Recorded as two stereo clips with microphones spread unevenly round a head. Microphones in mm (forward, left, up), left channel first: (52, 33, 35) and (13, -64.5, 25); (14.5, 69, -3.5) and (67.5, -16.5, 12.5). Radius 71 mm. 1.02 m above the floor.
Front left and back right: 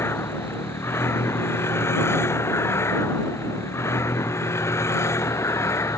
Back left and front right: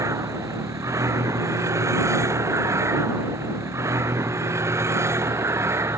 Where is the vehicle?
Straight ahead; by 6.0 s 5° left.